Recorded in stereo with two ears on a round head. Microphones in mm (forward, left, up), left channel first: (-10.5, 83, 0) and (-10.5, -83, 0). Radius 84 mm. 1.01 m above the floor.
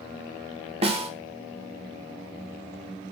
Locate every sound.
0.8 s a snare drum: 35° right (ahead or behind), 2.5 m